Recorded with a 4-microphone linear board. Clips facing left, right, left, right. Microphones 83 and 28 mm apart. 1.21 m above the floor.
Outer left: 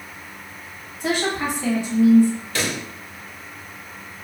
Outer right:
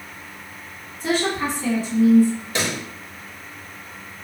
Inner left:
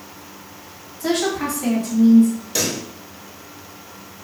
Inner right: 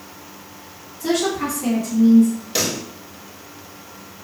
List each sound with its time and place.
1.0 s a woman speaking: 60° left (ahead or behind), 1.5 m
2.5 s a pop: 20° right (ahead or behind), 0.8 m